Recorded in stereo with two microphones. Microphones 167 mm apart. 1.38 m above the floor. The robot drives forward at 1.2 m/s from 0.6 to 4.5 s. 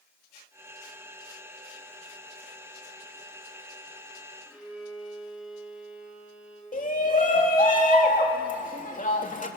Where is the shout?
50° left (ahead or behind), 3 m.